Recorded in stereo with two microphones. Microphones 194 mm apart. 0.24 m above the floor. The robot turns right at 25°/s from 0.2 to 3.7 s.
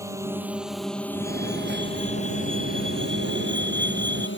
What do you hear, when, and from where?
0.0 s a drone: 15° right; by 4.4 s 75° left
1.1 s a fire alarm: 130° right; by 4.3 s 65° right